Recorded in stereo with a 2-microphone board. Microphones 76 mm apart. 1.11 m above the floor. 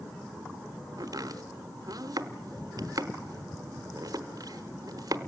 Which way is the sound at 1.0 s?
50° right (ahead or behind).